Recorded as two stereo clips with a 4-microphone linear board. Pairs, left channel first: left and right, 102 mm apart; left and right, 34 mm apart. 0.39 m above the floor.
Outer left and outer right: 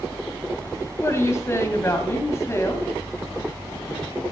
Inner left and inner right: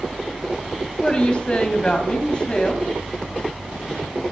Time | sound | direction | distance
1.0 | a woman speaking | 25° left (ahead or behind) | 3 m